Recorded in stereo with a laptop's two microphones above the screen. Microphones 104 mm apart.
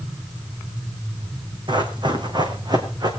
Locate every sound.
1.7 s running footsteps: 45° right (ahead or behind), 2.5 m; by 3.1 s 40° right (ahead or behind), 3.5 m